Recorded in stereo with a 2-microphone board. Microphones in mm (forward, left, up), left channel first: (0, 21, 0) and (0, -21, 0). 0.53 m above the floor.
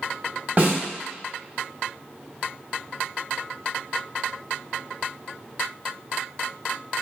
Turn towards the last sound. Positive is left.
turn(degrees=-40)  # may be behind; listen again after turning